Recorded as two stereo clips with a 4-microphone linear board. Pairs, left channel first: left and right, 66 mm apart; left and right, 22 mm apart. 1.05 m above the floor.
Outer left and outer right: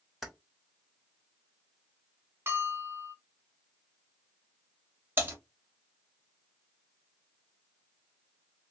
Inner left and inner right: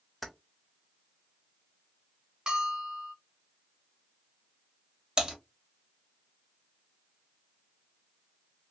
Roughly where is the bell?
Right.